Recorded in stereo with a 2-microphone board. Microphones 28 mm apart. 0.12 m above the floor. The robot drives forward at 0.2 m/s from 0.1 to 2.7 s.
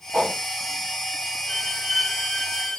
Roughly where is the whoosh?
Centre.